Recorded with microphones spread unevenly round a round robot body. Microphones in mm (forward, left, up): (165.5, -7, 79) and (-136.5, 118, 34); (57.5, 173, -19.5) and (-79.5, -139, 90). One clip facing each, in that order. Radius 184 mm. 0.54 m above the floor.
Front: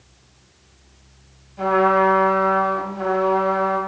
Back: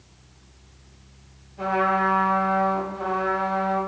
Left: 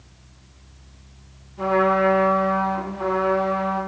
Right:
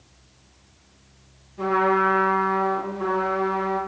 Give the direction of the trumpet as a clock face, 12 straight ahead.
12 o'clock.